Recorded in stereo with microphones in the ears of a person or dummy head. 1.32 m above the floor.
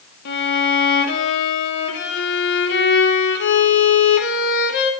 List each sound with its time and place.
0.2 s a violin: 65° left (ahead or behind), 0.9 m